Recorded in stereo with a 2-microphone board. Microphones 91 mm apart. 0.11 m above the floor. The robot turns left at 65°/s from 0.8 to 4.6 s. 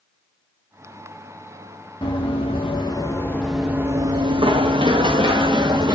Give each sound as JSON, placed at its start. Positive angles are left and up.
{"t": 2.0, "sound": "running footsteps", "side_deg": 60, "distance_m": 1.9}